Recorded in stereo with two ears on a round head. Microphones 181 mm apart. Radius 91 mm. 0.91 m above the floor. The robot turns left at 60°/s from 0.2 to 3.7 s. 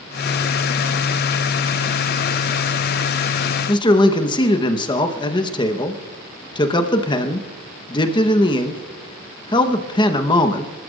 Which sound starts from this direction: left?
A man speaking, at 3.7 s.